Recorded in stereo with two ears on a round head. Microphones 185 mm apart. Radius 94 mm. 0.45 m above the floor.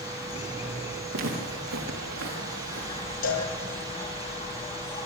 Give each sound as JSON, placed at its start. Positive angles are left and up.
{"t": 0.0, "sound": "an insect", "side_deg": 30, "distance_m": 2.0}
{"t": 1.1, "sound": "footsteps", "side_deg": -80, "distance_m": 5.5}
{"t": 3.2, "sound": "a cowbell", "side_deg": 70, "distance_m": 4.5}